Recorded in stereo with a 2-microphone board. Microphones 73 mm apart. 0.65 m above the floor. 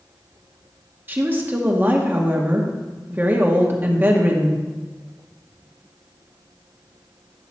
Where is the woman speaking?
30° right (ahead or behind), 1.1 m.